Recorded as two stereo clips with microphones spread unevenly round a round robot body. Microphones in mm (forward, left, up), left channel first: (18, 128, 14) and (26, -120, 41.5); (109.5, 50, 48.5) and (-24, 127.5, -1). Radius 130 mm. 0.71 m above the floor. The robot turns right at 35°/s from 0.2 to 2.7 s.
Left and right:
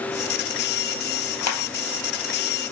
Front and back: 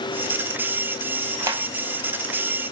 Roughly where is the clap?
Left.